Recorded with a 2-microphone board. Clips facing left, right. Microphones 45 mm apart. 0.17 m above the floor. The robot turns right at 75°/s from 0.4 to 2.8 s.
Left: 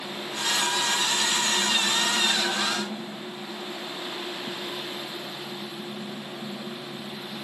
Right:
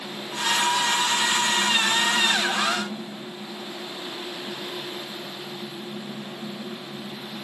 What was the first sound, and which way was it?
Only background noise.